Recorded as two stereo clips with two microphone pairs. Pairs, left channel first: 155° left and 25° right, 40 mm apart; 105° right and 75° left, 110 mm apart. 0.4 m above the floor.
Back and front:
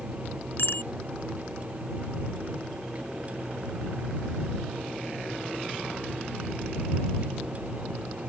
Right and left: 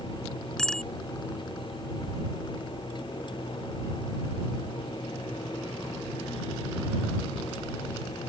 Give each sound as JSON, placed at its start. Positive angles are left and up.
{"t": 0.6, "sound": "a bicycle bell", "azimuth_deg": 175}